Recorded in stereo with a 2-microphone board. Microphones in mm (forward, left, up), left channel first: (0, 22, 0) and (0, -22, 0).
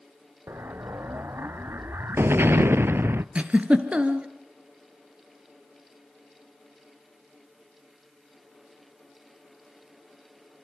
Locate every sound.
0.5 s an explosion: 65° right (ahead or behind), 0.5 m
3.4 s a giggle: 30° right (ahead or behind), 1.7 m